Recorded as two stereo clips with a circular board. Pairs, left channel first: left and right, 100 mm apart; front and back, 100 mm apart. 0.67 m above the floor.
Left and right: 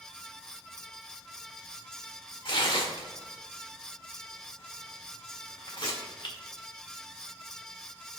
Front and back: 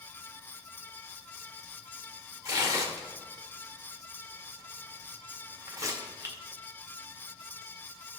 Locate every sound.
2.5 s tearing paper: 125° left, 1.6 m